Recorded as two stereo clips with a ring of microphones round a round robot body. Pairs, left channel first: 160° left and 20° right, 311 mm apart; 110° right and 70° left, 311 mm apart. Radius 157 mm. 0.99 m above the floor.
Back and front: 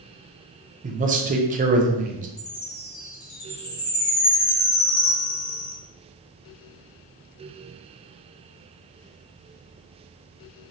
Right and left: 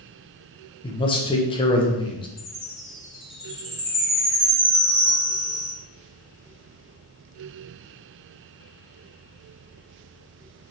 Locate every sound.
0.8 s a man speaking: 55° right, 0.6 m
2.4 s a chime: 155° left, 2.0 m